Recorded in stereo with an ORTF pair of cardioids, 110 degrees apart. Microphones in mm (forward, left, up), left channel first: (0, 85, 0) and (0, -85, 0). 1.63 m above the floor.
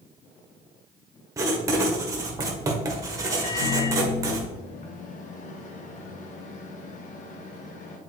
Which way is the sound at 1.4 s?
20° right.